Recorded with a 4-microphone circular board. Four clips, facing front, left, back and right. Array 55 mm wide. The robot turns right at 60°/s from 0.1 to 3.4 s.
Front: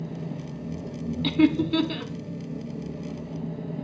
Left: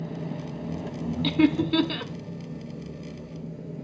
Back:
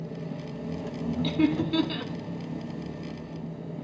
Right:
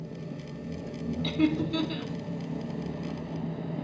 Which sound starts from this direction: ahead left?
Laughter, at 1.2 s.